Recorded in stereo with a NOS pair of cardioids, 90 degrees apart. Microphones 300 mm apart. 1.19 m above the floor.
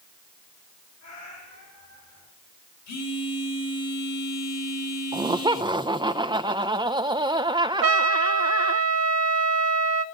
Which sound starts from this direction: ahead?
Laughter, at 5.1 s.